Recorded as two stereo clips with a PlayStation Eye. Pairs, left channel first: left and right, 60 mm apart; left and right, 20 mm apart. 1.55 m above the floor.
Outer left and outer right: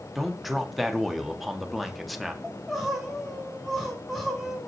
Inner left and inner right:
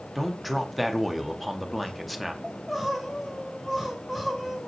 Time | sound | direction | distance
0.1 | a man speaking | centre (ahead or behind) | 0.7 m
2.4 | crying | centre (ahead or behind) | 1.3 m